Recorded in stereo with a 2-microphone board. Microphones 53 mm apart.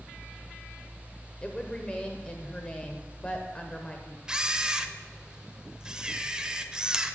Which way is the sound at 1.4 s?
20° left (ahead or behind).